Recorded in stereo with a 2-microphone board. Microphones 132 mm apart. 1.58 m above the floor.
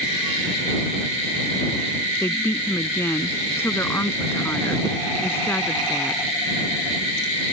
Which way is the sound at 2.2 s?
20° left (ahead or behind).